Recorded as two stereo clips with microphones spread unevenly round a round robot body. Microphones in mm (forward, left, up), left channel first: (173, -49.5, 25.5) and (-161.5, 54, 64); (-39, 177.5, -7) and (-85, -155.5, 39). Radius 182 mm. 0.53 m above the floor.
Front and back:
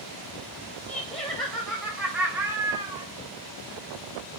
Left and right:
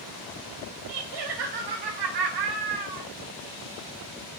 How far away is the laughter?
About 3 m.